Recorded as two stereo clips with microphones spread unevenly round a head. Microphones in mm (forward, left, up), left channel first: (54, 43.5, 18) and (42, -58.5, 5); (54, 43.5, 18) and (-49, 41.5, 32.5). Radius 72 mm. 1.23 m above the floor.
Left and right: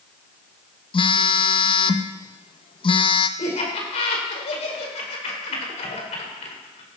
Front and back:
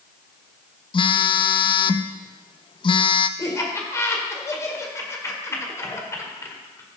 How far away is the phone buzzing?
About 0.8 m.